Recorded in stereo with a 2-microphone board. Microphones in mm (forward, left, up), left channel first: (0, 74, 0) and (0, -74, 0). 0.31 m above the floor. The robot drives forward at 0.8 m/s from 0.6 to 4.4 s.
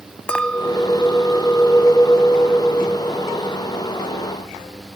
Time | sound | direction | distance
0.3 | a clink | 5° left (ahead or behind) | ?